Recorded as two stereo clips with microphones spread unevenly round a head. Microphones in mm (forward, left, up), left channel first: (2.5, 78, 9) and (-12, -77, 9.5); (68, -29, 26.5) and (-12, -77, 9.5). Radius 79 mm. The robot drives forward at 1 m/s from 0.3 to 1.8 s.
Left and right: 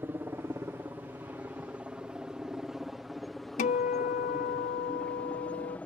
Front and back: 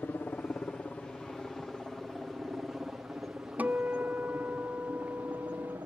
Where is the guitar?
125° left.